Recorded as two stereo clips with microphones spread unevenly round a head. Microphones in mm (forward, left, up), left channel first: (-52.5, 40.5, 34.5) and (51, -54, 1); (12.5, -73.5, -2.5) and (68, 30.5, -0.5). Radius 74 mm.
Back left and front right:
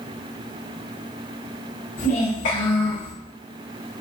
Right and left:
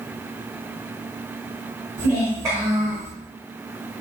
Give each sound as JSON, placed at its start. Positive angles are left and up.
{"t": 2.0, "sound": "a child speaking", "azimuth_deg": 140, "distance_m": 4.5}